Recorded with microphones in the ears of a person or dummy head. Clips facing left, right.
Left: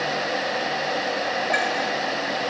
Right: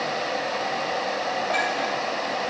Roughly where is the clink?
Left.